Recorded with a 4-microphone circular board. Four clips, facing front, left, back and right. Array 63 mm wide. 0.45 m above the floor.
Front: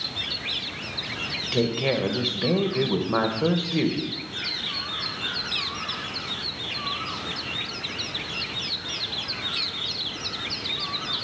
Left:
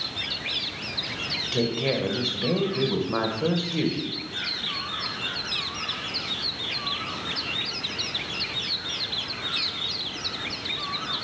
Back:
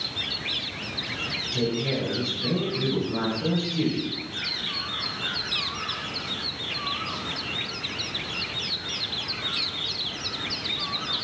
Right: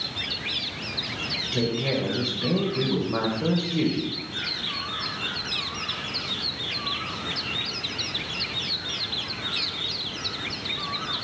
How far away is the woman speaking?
About 1.7 m.